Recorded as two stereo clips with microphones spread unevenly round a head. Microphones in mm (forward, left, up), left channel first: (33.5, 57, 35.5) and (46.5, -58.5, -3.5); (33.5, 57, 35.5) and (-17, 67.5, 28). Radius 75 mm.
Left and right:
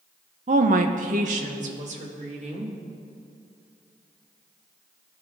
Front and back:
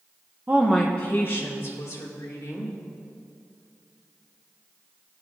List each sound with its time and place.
0.5 s a woman speaking: 125° right, 0.5 m; by 2.7 s 60° right, 2 m